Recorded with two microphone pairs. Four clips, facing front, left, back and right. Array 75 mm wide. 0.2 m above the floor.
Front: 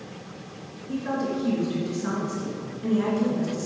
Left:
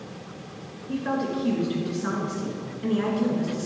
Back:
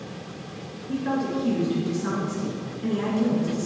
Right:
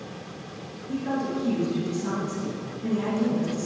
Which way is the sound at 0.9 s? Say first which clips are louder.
Left 1 dB, back 1 dB; 95° left.